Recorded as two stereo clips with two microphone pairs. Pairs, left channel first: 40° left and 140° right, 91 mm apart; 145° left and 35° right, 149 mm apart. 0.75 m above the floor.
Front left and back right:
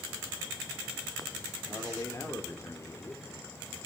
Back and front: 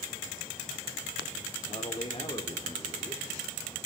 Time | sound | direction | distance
1.7 | a man speaking | 95° left | 1.8 m